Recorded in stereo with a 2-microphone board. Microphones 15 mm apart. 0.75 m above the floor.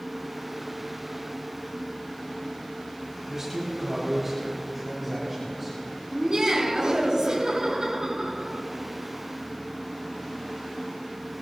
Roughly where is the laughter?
Right.